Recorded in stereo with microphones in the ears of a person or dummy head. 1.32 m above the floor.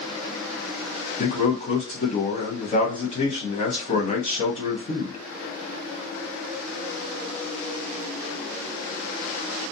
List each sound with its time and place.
1.2 s a man speaking: 35° left (ahead or behind), 1.0 m